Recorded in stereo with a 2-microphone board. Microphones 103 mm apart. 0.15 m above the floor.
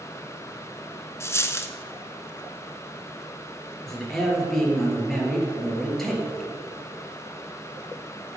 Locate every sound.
1.2 s a dropped coin: 25° left (ahead or behind), 0.8 m
3.9 s a man speaking: 5° left (ahead or behind), 3 m